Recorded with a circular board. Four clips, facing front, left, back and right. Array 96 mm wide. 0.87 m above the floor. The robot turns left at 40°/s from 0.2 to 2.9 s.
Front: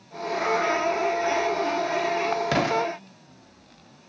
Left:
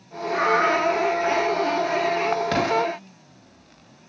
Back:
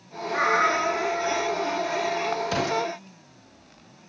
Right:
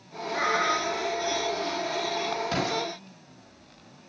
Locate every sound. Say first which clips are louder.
0.3 s a cat meowing: left 6 dB, back 1 dB; 145° left, 3.5 m; by 1.8 s 85° left, 3.5 m
2.5 s an explosion: left 7 dB, front 3 dB; 40° left, 2 m; by 2.9 s 25° left, 2 m